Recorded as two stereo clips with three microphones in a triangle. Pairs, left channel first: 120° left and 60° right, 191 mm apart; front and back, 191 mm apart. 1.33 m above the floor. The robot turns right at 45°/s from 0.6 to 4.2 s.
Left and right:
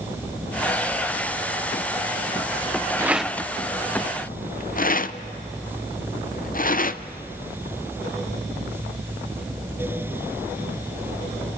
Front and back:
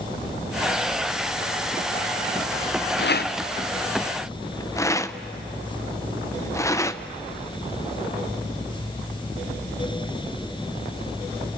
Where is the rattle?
20° left, 0.6 m; by 7.0 s 75° left, 0.6 m.